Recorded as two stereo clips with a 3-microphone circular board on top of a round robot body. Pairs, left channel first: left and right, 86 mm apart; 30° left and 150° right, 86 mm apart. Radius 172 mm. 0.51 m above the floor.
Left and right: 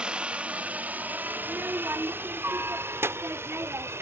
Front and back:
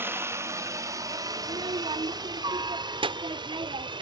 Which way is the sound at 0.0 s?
155° right.